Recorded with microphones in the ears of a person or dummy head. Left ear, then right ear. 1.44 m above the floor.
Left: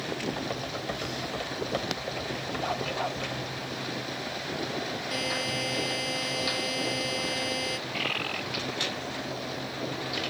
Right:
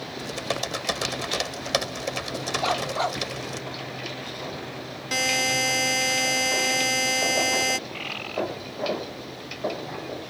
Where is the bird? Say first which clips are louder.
Left 2 dB; 10° left (ahead or behind).